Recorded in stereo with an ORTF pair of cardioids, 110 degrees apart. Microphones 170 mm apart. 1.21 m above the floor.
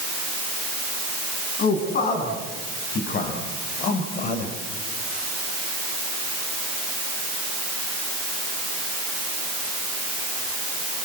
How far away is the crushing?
I don't hear crushing.